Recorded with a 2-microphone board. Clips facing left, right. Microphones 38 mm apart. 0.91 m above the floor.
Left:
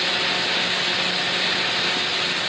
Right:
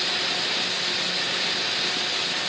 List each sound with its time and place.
Only background noise.